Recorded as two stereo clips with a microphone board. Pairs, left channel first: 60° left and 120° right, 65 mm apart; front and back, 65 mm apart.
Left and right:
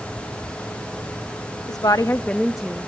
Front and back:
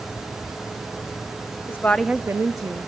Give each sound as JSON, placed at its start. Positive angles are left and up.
{"t": 1.7, "sound": "a woman speaking", "azimuth_deg": 50, "distance_m": 0.8}